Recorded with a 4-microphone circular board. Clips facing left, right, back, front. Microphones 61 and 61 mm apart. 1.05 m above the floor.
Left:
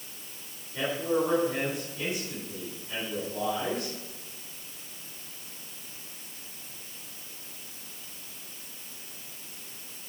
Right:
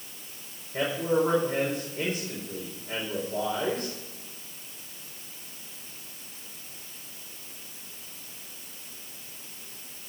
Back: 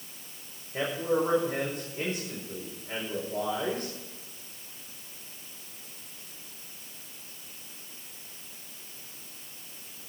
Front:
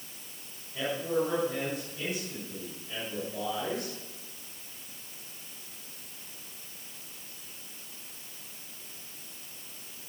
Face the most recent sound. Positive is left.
turn(degrees=-135)